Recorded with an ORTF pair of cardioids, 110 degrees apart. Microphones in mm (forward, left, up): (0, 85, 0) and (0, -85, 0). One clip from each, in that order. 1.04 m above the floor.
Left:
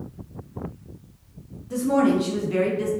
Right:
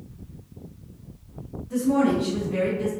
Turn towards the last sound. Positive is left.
turn(degrees=60)